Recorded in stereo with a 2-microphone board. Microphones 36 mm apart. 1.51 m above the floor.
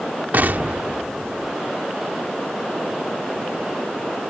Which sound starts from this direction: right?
An explosion, at 0.3 s.